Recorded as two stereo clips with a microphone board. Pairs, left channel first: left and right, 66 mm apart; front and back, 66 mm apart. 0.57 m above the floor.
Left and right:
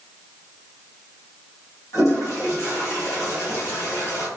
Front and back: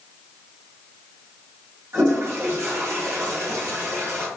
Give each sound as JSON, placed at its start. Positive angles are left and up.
{"t": 1.9, "sound": "a toilet flushing", "azimuth_deg": 130, "distance_m": 1.8}